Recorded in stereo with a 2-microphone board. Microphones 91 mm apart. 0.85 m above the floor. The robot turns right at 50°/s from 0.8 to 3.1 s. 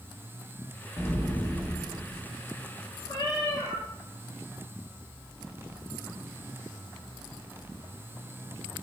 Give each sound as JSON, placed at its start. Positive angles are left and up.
{"t": 1.0, "sound": "an explosion", "azimuth_deg": 135, "distance_m": 0.5}
{"t": 3.1, "sound": "a cat meowing", "side_deg": 40, "distance_m": 0.8}